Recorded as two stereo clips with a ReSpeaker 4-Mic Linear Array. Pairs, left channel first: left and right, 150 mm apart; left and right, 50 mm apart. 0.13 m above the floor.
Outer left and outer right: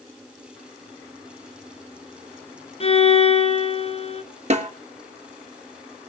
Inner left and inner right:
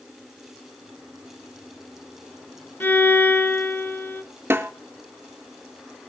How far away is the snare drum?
About 2.5 m.